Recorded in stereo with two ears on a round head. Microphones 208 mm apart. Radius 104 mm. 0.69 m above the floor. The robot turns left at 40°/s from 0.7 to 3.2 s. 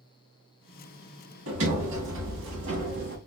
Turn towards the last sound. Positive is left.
turn(degrees=-130)